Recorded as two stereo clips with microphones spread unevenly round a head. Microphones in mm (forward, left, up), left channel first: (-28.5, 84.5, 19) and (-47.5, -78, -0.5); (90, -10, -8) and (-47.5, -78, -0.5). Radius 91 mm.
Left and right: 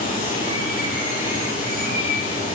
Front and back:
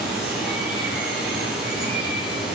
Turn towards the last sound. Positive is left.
turn(degrees=120)